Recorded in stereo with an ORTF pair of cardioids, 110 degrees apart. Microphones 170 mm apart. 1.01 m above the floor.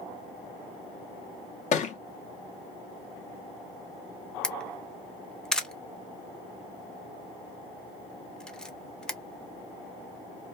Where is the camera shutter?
5° left, 0.5 m.